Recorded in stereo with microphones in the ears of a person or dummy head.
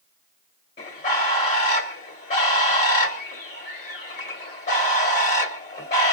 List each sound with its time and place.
0.8 s a bird: 35° left (ahead or behind), 1.9 m